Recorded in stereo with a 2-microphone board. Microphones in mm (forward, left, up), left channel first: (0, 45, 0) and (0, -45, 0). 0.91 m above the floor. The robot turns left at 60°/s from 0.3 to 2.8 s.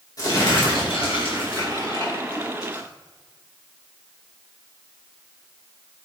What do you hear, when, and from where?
0.2 s crumpling: 135° left, 2.5 m; by 2.9 s 15° right, 2.5 m